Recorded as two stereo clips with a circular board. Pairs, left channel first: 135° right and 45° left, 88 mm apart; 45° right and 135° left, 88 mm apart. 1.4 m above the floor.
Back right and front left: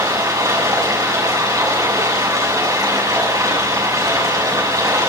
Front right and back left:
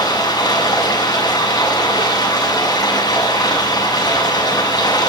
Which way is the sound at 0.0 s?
5° right.